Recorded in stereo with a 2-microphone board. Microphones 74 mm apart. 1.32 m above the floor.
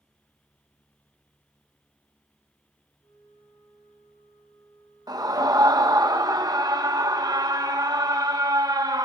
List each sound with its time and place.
3.0 s a flute: 90° left, 6.5 m
5.1 s a scream: 60° right (ahead or behind), 1.9 m